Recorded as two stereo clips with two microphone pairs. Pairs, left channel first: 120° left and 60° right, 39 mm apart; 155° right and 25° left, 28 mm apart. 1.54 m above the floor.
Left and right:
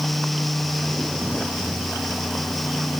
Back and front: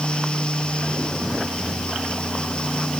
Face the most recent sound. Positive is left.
No sound to turn to.